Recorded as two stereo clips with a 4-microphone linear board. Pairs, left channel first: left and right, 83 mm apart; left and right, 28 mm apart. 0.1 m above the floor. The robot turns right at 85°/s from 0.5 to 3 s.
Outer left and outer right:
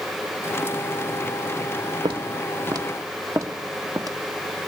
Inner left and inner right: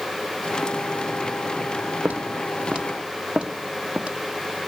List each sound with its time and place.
2.0 s footsteps: 85° right, 1.3 m; by 4.2 s 50° right (ahead or behind), 2 m